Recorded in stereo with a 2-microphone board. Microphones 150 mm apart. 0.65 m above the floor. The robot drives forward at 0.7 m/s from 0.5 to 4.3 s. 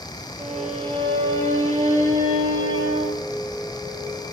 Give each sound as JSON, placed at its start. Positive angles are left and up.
{"t": 0.4, "sound": "a violin", "side_deg": -40, "distance_m": 9.5}